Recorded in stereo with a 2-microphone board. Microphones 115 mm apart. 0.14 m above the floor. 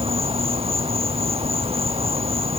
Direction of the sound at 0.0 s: 55° right (ahead or behind).